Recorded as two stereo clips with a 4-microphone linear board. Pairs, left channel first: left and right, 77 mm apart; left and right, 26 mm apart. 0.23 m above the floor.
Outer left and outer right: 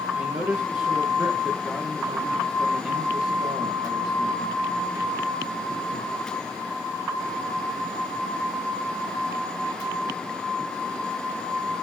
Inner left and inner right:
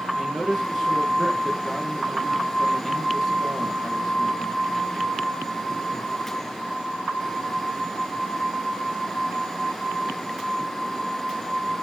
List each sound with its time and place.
0.1 s a man speaking: 10° right (ahead or behind), 3.5 m